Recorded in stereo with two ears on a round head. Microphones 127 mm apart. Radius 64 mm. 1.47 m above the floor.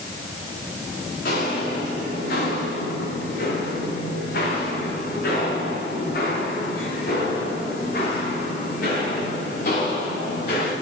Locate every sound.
1.2 s footsteps: 75° left (ahead or behind), 5 m; by 10.7 s 65° left (ahead or behind), 8.5 m